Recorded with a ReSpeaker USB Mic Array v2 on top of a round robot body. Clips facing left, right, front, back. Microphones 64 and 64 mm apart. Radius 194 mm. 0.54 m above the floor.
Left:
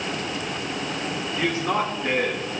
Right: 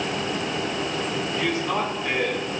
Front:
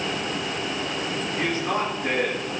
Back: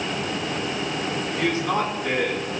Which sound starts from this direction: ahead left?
A man speaking, at 1.4 s.